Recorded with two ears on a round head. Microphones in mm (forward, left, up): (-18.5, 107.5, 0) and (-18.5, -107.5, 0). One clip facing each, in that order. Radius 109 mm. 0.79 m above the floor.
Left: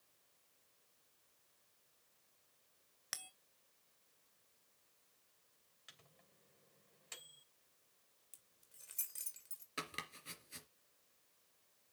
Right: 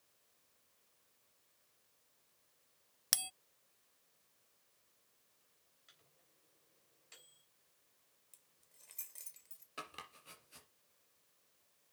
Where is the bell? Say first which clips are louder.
Right 8 dB; 55° right (ahead or behind), 0.5 m.